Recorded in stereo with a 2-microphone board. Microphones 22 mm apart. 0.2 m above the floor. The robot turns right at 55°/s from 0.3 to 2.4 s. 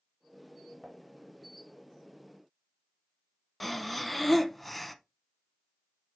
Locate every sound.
0.8 s dishes clattering: centre (ahead or behind), 1.3 m; by 1.0 s 10° left (ahead or behind), 1.3 m
3.6 s breathing: 5° left (ahead or behind), 0.8 m